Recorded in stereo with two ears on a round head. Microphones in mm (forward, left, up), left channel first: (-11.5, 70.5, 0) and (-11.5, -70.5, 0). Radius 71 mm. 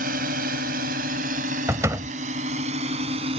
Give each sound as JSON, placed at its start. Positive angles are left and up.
{"t": 0.0, "sound": "a drone", "side_deg": -60}
{"t": 1.7, "sound": "a door slam", "side_deg": -20}